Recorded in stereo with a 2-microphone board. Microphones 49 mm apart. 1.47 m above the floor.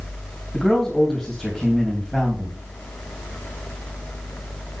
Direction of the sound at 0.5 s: 5° left (ahead or behind).